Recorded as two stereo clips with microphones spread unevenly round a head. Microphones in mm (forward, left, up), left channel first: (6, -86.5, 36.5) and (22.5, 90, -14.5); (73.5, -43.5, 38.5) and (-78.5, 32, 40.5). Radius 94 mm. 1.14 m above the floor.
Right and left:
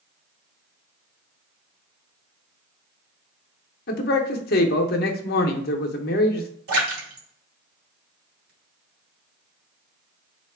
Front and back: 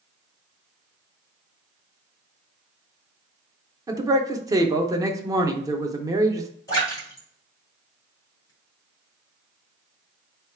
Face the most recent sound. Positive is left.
turn(degrees=45)